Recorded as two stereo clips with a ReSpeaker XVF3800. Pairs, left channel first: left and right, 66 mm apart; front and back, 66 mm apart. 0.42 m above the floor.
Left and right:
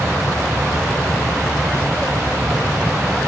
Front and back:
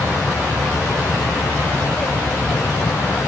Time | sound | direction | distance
0.0 | an aircraft | 10° right | ?